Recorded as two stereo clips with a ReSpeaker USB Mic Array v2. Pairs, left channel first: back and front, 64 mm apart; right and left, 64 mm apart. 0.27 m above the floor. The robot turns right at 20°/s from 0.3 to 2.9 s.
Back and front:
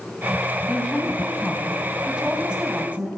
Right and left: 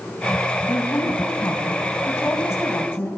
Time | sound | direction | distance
0.7 | a woman speaking | 105° right | 1.6 m